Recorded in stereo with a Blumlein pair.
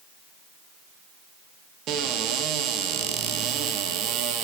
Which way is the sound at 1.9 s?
35° right.